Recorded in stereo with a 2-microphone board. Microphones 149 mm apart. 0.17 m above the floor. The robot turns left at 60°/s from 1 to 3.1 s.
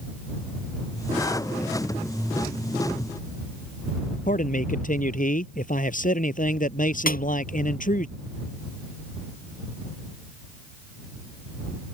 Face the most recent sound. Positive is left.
turn(degrees=65)  # may be behind; listen again after turning